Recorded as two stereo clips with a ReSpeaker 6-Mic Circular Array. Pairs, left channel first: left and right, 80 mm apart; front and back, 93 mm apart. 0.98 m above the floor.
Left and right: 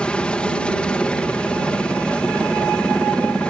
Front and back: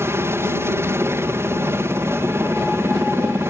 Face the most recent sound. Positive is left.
turn(degrees=155)